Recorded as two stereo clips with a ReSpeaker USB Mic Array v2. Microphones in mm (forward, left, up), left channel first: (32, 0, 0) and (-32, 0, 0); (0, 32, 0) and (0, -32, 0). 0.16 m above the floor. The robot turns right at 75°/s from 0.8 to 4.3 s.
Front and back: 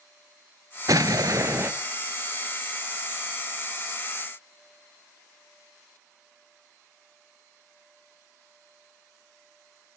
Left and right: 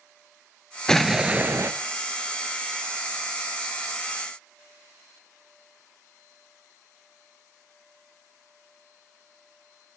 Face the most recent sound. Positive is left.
turn(degrees=65)